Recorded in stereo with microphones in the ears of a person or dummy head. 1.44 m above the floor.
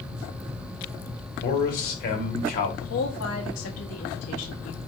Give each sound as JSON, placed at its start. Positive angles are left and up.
{"t": 1.4, "sound": "a man speaking", "side_deg": 45, "distance_m": 1.3}
{"t": 2.8, "sound": "a woman speaking", "side_deg": 80, "distance_m": 1.2}